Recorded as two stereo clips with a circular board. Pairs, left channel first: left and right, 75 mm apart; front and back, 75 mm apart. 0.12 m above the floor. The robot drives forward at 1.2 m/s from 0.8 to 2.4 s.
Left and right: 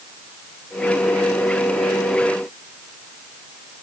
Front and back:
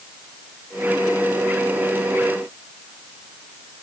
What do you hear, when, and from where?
Only background noise.